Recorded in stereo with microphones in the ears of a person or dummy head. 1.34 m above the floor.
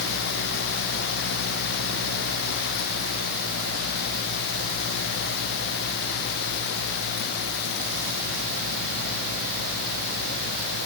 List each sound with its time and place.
Only background noise.